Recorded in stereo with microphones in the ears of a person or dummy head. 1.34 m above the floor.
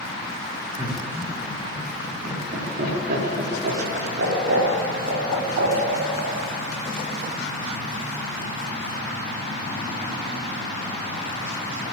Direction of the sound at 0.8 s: 30° right (ahead or behind).